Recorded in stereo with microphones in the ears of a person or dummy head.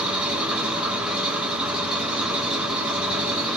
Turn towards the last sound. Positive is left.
turn(degrees=-5)  # may be behind; listen again after turning